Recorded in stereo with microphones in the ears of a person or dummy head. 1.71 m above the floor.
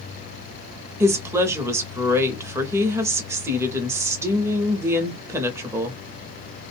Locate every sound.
1.0 s a woman speaking: 15° right (ahead or behind), 0.7 m